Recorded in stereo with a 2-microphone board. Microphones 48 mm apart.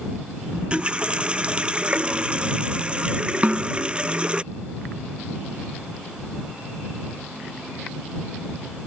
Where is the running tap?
20° right (ahead or behind).